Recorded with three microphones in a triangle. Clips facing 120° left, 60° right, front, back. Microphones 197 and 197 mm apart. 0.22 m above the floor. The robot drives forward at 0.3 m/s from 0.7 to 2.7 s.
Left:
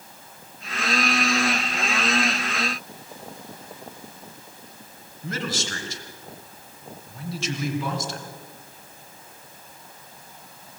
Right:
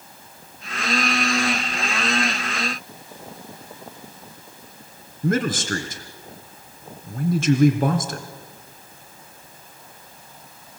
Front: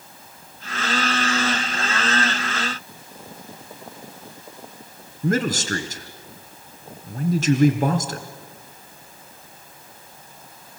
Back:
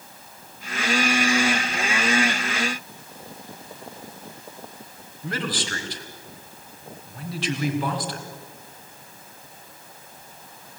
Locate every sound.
5.2 s a man speaking: 35° right, 2.5 m